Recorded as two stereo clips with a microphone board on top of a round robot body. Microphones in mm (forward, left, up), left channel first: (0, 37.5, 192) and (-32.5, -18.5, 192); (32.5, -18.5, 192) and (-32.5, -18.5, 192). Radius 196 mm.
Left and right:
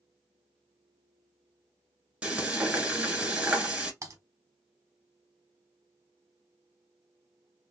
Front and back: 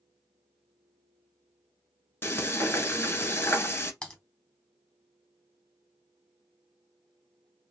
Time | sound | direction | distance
2.2 | frying | 50° right | 1.9 m
4.0 | typing on a keyboard | 75° right | 0.9 m